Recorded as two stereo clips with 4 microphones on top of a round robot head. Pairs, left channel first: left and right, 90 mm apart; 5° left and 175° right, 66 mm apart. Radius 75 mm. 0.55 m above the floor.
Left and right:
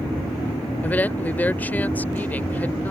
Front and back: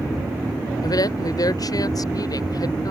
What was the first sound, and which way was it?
A woman speaking, 20° left.